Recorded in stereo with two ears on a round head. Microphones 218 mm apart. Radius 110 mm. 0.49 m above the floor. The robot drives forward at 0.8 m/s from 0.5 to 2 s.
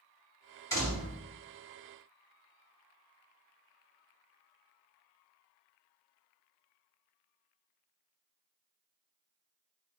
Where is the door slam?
15° left (ahead or behind), 2.5 m; by 1.2 s 10° left (ahead or behind), 2.5 m.